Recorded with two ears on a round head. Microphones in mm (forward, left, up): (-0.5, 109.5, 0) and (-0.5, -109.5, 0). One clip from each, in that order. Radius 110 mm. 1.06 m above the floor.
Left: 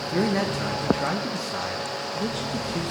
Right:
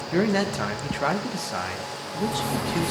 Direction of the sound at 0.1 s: 25° right (ahead or behind).